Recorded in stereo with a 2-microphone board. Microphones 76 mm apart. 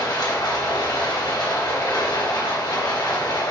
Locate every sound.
0.0 s running water: 80° left, 2.5 m